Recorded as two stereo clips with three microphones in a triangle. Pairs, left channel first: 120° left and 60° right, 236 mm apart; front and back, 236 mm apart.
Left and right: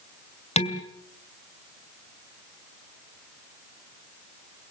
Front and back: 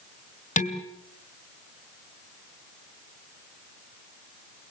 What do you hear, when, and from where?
0.6 s dishes clattering: 55° left, 2 m